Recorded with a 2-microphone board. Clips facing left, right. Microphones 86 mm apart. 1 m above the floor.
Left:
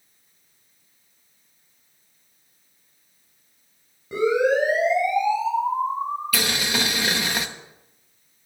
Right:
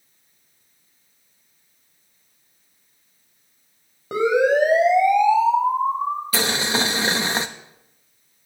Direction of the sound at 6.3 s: 30° right (ahead or behind).